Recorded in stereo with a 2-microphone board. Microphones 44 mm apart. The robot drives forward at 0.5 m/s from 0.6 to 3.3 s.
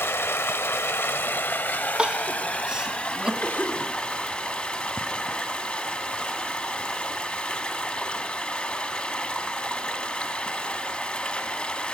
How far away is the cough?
About 4 m.